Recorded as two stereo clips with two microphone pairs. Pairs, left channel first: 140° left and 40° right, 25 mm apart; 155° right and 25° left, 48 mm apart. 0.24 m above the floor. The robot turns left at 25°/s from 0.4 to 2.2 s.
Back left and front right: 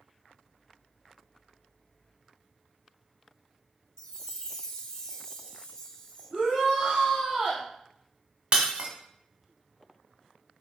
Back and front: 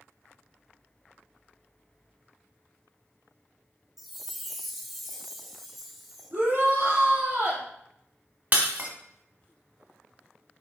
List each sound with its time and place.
4.0 s a chime: 105° left, 0.7 m
6.3 s a shout: straight ahead, 2.5 m
8.5 s breaking glass: 10° right, 1.0 m